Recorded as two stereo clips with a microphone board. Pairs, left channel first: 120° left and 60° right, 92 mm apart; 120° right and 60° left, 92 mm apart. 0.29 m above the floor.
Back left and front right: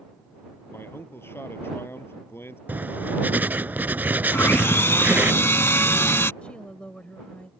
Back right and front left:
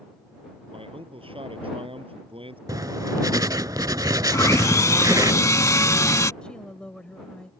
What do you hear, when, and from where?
0.7 s a man speaking: 55° left
2.7 s writing: 10° left
4.3 s sawing: 175° right
6.4 s a woman speaking: 175° left